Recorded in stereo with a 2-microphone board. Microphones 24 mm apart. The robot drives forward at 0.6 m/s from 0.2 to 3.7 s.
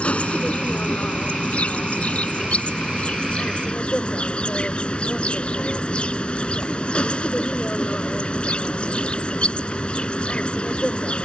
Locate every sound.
0.0 s an insect: 60° left (ahead or behind); by 11.3 s 50° left (ahead or behind)